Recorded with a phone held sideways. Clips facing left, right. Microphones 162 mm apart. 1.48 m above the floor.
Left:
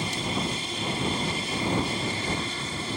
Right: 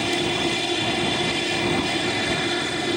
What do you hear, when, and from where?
0.0 s an aircraft: 70° right (ahead or behind)